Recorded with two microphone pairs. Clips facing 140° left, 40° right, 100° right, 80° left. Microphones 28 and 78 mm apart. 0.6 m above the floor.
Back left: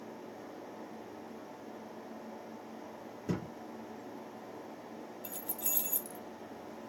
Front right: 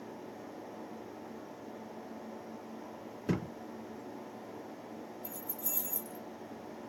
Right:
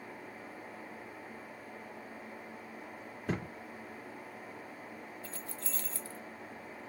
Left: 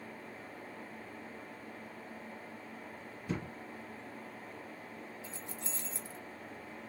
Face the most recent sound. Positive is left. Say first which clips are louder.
# back left 1 dB, right 1 dB
turn(degrees=150)